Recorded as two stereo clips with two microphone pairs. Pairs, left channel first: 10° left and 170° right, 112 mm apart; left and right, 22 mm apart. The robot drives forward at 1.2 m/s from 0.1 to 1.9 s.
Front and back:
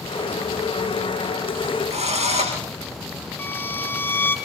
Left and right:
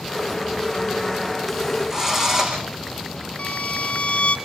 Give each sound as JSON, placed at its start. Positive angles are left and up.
{"t": 1.9, "sound": "a drill", "azimuth_deg": -155, "distance_m": 8.5}
{"t": 3.4, "sound": "a violin", "azimuth_deg": 80, "distance_m": 4.0}